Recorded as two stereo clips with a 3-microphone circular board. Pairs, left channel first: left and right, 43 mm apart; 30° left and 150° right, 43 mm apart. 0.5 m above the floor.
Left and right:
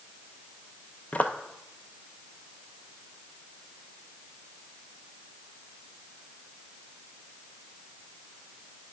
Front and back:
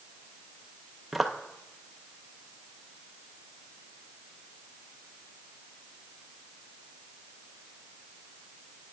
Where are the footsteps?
125° left, 0.6 m.